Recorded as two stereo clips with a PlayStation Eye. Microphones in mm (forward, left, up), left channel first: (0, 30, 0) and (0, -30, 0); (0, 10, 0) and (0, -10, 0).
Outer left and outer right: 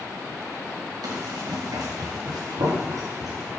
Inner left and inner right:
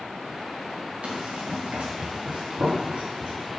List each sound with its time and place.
1.0 s running footsteps: 80° right, 3 m; by 3.5 s 85° right, 6.5 m